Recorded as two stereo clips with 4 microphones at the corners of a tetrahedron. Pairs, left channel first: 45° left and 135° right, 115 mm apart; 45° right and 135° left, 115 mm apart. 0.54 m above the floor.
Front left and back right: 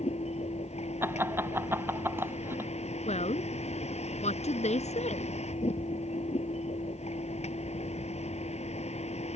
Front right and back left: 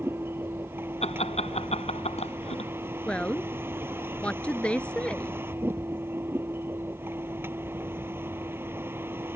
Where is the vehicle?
65° left.